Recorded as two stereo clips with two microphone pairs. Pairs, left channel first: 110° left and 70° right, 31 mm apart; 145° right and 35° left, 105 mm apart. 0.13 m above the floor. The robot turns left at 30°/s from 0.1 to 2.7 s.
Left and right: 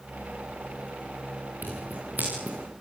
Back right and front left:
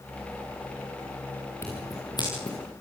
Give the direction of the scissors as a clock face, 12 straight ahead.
3 o'clock.